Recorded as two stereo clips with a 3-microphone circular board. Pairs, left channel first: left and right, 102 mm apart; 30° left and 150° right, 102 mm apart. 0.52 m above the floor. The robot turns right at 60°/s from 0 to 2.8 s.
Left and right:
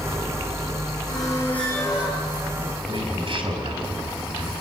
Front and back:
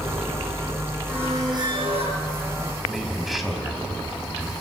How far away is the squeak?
About 8 m.